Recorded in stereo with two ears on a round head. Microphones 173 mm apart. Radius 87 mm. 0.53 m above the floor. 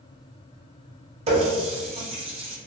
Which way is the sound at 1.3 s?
30° right (ahead or behind).